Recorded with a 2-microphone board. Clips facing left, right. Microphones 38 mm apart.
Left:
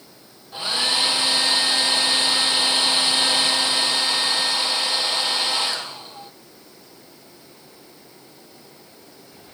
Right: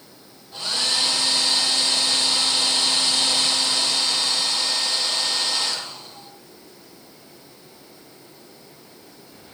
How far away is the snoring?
I don't hear snoring.